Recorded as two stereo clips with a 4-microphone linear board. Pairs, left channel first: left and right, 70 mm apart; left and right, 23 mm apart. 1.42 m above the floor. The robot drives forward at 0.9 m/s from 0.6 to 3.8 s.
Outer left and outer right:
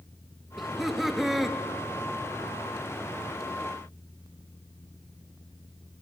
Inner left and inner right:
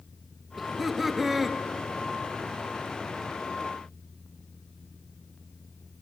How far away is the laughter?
About 2 m.